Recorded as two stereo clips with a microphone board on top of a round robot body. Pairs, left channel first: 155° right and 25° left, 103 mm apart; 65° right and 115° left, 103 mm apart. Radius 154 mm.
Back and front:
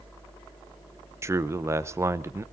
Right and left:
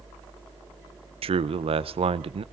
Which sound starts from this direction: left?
A man speaking, at 1.2 s.